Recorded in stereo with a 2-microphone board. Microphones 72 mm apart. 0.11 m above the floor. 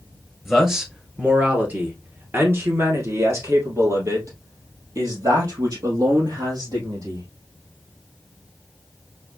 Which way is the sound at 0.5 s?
5° right (ahead or behind).